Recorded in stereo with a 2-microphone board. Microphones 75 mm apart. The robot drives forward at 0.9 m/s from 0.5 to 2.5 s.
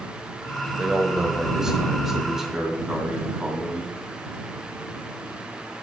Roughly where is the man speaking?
Centre.